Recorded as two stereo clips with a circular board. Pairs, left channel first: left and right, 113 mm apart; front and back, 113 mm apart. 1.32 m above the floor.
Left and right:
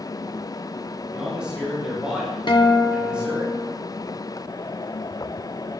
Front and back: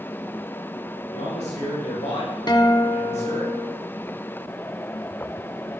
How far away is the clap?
I don't hear a clap.